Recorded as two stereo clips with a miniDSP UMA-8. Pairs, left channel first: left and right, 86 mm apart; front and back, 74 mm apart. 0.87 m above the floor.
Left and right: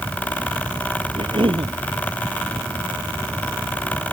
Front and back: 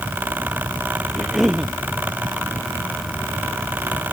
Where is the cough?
90° right.